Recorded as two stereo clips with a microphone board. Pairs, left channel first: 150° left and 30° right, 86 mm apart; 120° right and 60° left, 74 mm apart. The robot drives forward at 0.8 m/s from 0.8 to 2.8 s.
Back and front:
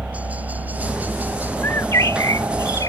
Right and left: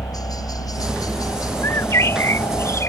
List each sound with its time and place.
0.0 s a helicopter: 100° right; by 2.9 s 90° right
1.6 s a bird: 155° right; by 2.9 s 170° right